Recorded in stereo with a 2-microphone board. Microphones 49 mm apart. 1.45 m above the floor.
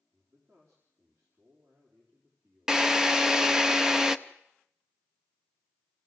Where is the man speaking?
85° right, 4 m.